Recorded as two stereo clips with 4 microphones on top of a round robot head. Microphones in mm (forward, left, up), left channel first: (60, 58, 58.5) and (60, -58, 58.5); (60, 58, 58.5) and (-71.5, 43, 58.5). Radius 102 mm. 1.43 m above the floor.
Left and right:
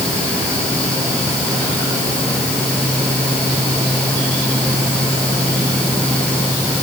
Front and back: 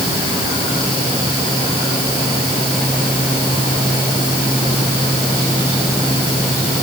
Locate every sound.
Only background noise.